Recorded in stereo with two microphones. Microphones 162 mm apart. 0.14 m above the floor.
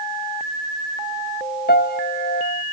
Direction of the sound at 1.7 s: 75° left (ahead or behind).